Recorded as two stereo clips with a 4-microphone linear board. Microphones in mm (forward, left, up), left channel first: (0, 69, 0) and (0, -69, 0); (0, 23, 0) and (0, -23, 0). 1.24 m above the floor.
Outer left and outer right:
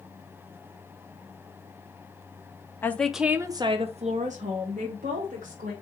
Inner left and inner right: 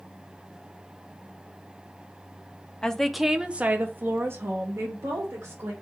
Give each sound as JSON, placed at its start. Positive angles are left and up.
{"t": 2.8, "sound": "a woman speaking", "side_deg": 15, "distance_m": 0.6}